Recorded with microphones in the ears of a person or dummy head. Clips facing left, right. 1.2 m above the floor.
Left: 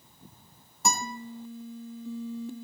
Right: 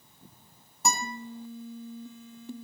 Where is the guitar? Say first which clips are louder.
Even; 5° left (ahead or behind), 3.5 m.